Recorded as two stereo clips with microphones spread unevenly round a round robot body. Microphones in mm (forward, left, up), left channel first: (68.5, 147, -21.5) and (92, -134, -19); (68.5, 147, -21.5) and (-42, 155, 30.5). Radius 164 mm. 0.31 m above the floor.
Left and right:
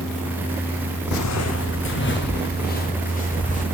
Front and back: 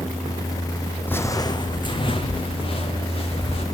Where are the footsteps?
80° left, 0.8 m; by 3.6 s 30° left, 3.5 m.